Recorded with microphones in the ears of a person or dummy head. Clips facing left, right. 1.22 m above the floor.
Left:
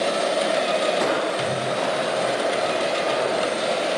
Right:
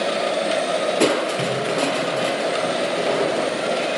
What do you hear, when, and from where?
1.0 s crushing: 45° right (ahead or behind), 4.5 m